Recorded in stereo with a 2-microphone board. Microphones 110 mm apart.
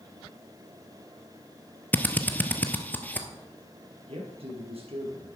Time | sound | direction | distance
1.9 | a drill | 15° left (ahead or behind) | 1.0 m
4.1 | a man speaking | 60° right (ahead or behind) | 3.5 m